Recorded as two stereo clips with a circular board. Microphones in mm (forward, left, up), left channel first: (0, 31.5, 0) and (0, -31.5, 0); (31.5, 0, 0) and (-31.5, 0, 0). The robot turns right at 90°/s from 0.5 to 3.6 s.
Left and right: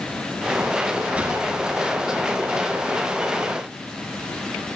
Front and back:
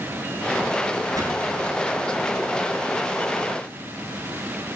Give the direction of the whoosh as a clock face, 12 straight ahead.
5 o'clock.